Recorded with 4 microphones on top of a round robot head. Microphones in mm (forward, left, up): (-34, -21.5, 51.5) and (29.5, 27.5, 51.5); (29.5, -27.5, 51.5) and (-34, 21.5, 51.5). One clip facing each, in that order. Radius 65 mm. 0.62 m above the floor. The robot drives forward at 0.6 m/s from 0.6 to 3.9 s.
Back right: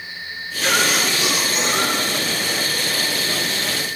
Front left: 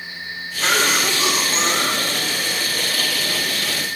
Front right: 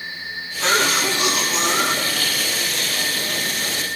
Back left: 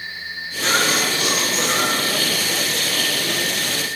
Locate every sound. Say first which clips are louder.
0.6 s a cough: even, front right 1 dB; 20° right, 8.5 m; by 2.5 s 25° right, 7.5 m